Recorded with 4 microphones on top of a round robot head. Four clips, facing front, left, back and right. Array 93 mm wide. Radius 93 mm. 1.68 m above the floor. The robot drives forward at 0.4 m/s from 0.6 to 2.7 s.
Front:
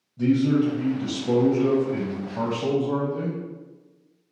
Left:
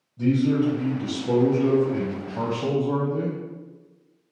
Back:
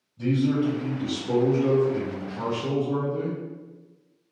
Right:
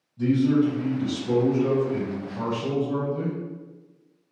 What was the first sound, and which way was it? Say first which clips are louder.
A man speaking: right 1 dB, front 3 dB; 25° left.